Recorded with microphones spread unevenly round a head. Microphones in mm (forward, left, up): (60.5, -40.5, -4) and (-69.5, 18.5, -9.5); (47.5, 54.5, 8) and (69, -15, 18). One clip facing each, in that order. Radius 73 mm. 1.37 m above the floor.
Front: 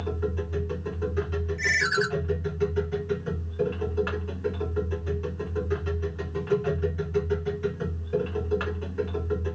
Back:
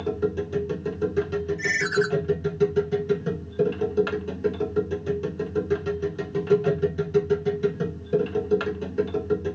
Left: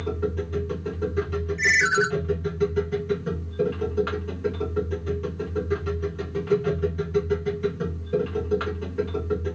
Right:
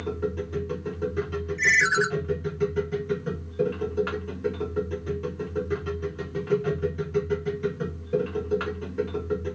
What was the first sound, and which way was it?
A machine running, 165° right.